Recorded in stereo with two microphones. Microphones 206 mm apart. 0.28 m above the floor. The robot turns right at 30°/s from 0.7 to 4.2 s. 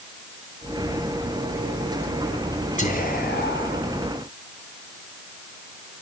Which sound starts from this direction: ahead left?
Whispering, at 2.8 s.